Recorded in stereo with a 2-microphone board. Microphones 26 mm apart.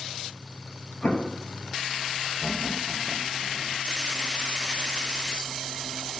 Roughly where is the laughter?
Left.